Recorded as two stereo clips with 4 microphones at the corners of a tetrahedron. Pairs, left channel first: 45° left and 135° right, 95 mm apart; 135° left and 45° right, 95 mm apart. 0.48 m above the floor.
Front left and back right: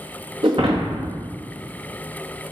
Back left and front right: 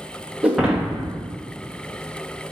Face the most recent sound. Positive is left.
turn(degrees=-135)